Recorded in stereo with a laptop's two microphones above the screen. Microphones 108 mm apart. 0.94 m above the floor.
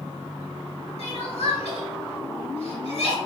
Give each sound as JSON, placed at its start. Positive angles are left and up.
{"t": 1.0, "sound": "crying", "side_deg": 65, "distance_m": 1.2}